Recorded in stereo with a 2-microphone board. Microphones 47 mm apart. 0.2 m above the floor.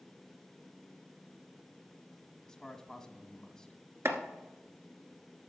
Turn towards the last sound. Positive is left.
turn(degrees=-70)  # may be behind; listen again after turning